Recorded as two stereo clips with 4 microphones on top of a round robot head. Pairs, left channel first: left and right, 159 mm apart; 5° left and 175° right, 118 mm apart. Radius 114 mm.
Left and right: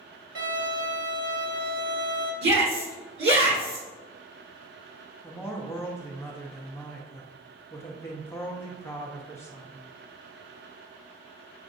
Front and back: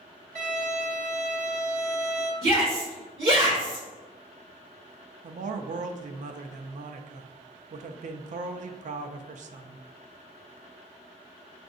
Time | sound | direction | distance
0.3 | a violin | 120° right | 1.5 m
2.4 | a shout | 115° right | 1.9 m
5.2 | a man speaking | 165° left | 0.5 m